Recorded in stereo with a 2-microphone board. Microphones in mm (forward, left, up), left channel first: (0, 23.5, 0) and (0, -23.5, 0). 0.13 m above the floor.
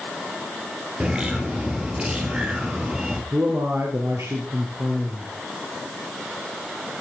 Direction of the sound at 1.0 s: 20° right (ahead or behind).